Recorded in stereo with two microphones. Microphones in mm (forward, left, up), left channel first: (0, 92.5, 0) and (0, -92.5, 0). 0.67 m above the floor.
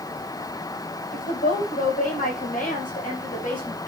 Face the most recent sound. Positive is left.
turn(degrees=45)  # may be behind; listen again after turning